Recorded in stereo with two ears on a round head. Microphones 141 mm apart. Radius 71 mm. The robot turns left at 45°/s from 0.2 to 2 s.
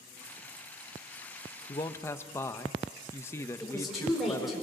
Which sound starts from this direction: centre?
A woman speaking, at 3.6 s.